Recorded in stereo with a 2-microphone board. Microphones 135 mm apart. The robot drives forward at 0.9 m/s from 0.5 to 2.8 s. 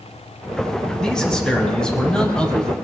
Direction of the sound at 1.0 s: 5° left (ahead or behind).